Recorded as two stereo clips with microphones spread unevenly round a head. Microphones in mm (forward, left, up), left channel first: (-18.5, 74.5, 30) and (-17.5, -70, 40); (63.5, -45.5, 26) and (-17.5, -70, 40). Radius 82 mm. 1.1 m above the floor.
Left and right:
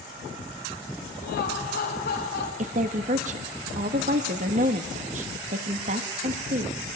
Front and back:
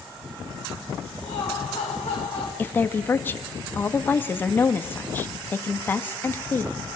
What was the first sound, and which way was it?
Laughter, 90° left.